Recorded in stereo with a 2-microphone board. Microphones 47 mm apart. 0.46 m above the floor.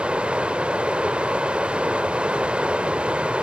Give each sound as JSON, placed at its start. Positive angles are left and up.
{"t": 0.0, "sound": "running water", "side_deg": -25, "distance_m": 0.8}